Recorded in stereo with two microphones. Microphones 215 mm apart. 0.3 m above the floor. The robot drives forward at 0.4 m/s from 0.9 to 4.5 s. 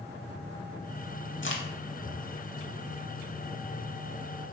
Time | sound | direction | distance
1.4 | a crack | 65° left (ahead or behind) | 0.8 m